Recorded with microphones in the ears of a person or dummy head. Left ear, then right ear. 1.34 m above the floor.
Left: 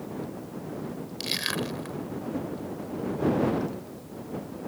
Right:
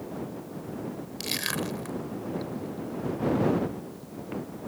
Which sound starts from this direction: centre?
Crushing, at 1.2 s.